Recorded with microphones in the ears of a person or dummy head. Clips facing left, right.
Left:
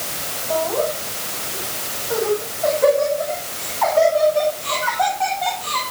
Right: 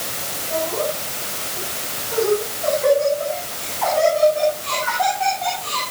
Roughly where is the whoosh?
I don't hear a whoosh.